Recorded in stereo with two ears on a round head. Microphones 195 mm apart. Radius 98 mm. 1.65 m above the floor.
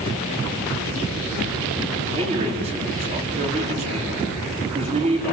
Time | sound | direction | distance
2.1 | a man speaking | 30° right (ahead or behind) | 5 m